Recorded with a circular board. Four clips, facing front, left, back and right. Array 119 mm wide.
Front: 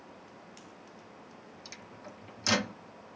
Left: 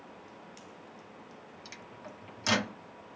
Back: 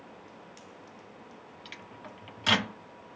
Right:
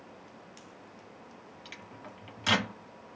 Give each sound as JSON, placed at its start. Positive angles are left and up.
{"t": 1.6, "sound": "a microwave", "azimuth_deg": -155, "distance_m": 0.8}